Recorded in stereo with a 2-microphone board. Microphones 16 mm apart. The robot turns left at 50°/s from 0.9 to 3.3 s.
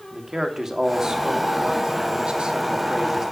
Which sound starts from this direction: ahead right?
A man speaking, at 0.1 s.